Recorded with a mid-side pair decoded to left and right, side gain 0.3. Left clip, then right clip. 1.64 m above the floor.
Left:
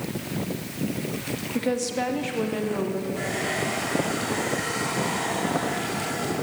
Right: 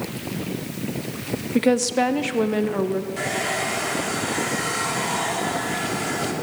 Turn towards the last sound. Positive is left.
turn(degrees=-60)